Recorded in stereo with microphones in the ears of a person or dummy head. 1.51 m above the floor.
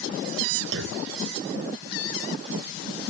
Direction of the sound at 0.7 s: 75° right (ahead or behind).